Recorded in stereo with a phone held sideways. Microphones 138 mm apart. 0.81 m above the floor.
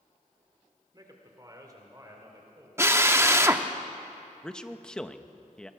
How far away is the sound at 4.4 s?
About 0.8 m.